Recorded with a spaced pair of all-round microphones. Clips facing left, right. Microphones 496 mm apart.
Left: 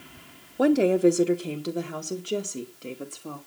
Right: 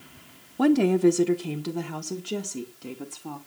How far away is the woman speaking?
About 0.9 m.